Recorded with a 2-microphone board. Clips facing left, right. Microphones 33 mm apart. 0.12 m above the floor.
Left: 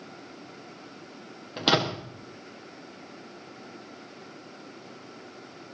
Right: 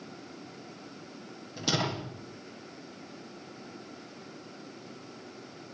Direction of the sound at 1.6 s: 55° left (ahead or behind).